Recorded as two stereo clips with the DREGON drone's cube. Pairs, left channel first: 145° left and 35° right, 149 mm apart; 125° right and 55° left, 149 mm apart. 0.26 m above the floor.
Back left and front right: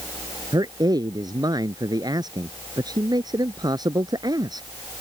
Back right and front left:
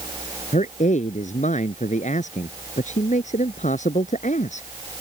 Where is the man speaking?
95° right.